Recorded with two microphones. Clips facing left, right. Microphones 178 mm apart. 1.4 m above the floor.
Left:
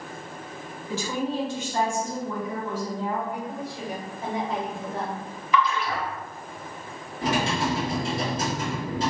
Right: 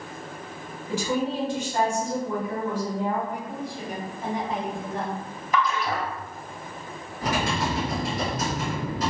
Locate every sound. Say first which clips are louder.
0.9 s a woman speaking: right 2 dB; 10° right (ahead or behind), 1.3 m
3.3 s a woman speaking: even; 20° left (ahead or behind), 1.9 m
5.5 s a splash: left 1 dB; 45° right (ahead or behind), 0.6 m
7.2 s typing on a keyboard: left 1 dB; 25° left (ahead or behind), 1.4 m